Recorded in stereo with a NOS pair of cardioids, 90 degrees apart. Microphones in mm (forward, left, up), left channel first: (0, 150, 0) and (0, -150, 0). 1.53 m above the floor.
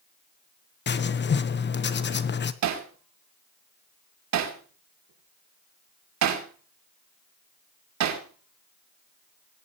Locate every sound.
0.9 s writing: 35° left, 1.2 m
2.6 s hammering: 70° right, 2.5 m